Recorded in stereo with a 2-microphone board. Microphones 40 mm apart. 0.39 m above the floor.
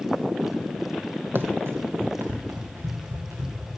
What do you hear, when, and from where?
1.4 s running footsteps: 60° right (ahead or behind), 0.7 m; by 3.7 s 80° right, 3.5 m